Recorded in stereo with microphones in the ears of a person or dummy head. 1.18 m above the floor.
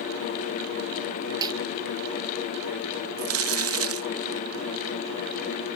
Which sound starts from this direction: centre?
A snare drum, at 1.4 s.